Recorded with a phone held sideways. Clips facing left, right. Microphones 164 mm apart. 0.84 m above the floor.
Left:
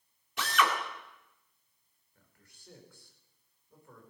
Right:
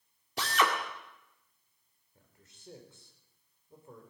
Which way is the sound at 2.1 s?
25° right (ahead or behind).